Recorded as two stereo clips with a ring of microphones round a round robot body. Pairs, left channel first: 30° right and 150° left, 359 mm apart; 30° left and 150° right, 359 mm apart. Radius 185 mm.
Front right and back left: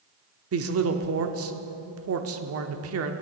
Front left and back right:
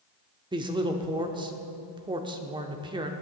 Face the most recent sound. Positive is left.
turn(degrees=140)